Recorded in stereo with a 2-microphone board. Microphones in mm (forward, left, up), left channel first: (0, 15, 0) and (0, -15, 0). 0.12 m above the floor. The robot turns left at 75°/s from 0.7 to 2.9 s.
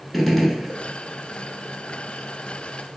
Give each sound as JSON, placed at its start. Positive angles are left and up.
{"t": 0.1, "sound": "a gunshot", "side_deg": 5, "distance_m": 0.5}